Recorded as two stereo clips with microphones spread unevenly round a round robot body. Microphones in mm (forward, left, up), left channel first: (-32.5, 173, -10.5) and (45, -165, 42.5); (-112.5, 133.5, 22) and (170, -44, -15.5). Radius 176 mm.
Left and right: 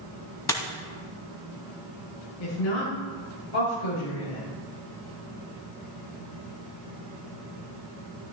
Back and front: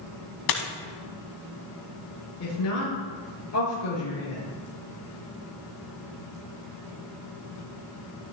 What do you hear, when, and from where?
0.5 s a dropped coin: 175° right, 1.5 m
2.4 s a woman speaking: 105° left, 6.5 m